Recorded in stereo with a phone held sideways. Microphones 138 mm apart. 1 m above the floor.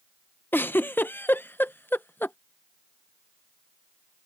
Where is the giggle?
15° left (ahead or behind).